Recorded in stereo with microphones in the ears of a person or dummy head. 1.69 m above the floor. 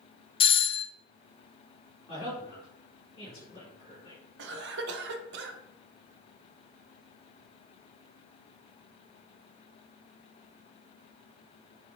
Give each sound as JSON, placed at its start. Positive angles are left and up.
{"t": 0.4, "sound": "a doorbell", "side_deg": 20, "distance_m": 0.6}
{"t": 2.1, "sound": "a woman speaking", "side_deg": 25, "distance_m": 4.0}
{"t": 4.4, "sound": "a cough", "side_deg": -65, "distance_m": 1.4}